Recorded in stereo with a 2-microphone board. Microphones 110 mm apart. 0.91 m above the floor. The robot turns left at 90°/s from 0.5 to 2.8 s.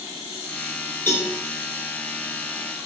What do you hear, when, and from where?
1.1 s a cowbell: 20° left (ahead or behind), 10 m; by 1.3 s 40° left (ahead or behind), 10 m